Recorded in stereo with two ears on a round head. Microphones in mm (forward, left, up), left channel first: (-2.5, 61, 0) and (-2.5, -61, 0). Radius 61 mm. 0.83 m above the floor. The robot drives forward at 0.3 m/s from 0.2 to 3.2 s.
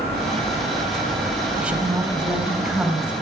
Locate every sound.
1.6 s a woman speaking: 10° right (ahead or behind), 4.5 m